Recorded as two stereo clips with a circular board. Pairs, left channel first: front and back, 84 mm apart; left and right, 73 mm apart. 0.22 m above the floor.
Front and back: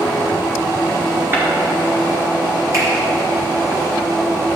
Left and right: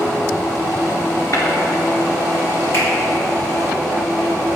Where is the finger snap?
140° left, 3 m.